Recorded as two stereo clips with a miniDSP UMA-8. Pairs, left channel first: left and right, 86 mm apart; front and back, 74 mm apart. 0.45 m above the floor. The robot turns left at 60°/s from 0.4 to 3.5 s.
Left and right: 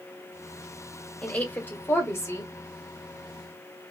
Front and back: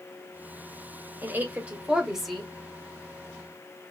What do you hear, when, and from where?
1.2 s a woman speaking: 155° left, 1.2 m; by 2.5 s 80° left, 1.2 m